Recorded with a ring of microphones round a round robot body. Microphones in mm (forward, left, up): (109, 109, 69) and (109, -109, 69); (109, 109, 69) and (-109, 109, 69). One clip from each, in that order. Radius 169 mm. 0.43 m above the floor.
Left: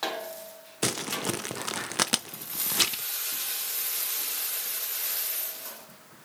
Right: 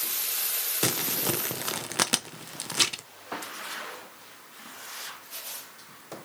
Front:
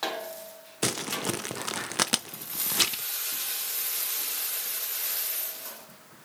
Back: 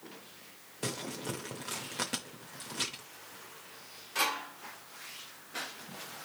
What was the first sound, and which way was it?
Crumpling, 10° left.